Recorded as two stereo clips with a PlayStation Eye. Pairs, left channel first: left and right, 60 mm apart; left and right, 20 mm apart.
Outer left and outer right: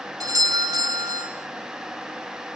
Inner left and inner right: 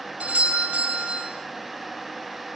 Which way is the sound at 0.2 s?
80° right.